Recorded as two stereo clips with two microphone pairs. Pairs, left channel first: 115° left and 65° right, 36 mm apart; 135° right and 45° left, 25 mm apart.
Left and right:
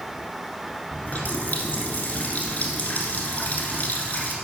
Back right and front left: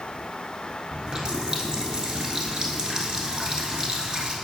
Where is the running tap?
85° left, 1.3 m.